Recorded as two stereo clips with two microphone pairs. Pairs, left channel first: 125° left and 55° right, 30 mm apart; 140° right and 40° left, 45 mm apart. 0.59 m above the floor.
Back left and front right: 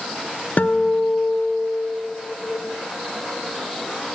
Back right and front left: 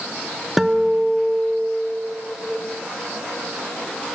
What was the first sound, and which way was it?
A guitar, 125° left.